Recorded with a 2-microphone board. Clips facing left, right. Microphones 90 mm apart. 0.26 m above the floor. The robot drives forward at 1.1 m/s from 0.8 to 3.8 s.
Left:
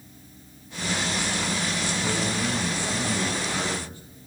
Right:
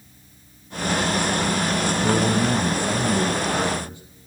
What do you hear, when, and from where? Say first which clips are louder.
2.0 s a man speaking: right 9 dB; 30° right (ahead or behind), 1.2 m; by 4.0 s 20° right (ahead or behind), 2.0 m